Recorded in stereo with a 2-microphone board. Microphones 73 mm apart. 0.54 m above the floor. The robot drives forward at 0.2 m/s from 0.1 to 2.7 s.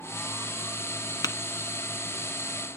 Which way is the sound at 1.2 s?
65° left (ahead or behind).